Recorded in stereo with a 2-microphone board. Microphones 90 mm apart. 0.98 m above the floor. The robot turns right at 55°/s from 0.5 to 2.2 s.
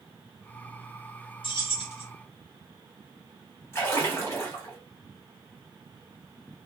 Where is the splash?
30° left (ahead or behind), 1.3 m.